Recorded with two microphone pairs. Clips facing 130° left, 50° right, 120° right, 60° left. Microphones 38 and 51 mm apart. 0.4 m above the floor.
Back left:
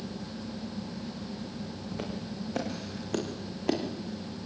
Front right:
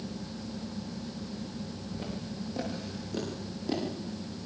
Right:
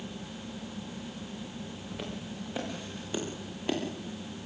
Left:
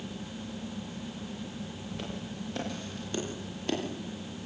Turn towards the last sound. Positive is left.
turn(degrees=160)